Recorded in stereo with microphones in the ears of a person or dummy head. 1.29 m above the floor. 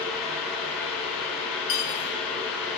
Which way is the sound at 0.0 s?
Centre (ahead or behind).